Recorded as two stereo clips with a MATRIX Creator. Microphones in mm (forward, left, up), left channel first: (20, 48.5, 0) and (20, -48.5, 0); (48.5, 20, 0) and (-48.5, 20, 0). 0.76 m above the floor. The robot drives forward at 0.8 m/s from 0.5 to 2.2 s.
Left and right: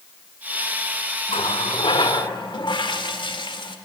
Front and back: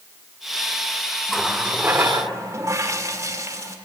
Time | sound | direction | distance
1.3 | a running tap | 85° left | 1.0 m